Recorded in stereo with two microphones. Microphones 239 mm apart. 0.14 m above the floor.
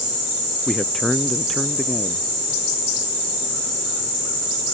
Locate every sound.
0.7 s a man speaking: centre (ahead or behind)